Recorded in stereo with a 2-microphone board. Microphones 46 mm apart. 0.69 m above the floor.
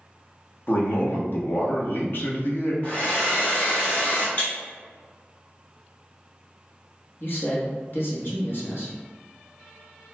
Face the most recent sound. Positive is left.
turn(degrees=50)  # may be behind; listen again after turning